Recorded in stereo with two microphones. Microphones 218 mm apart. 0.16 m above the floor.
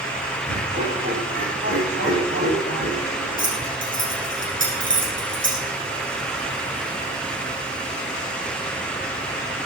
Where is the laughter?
45° right (ahead or behind), 8 m; by 3.5 s 55° right (ahead or behind), 6.5 m.